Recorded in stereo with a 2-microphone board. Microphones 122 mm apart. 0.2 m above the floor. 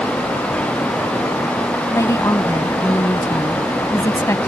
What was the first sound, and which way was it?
A woman speaking, 25° left (ahead or behind).